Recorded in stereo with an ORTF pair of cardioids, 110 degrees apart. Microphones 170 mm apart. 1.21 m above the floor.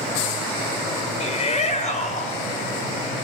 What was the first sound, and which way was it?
A shout, 40° left.